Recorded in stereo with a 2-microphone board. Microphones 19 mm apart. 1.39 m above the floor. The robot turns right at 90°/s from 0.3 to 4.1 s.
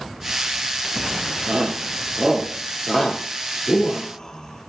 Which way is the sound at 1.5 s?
75° right (ahead or behind).